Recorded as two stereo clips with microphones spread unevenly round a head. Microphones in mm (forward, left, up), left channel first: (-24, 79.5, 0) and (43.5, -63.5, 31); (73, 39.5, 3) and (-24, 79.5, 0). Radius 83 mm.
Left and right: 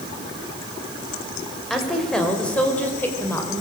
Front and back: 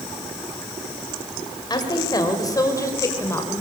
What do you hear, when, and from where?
1.7 s a woman speaking: 25° left, 5 m; by 3.6 s 45° left, 5 m